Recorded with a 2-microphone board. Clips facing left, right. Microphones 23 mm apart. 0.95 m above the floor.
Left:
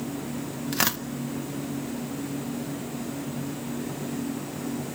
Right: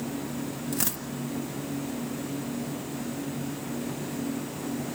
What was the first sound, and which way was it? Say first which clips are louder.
Tearing paper: left 9 dB; 40° left (ahead or behind).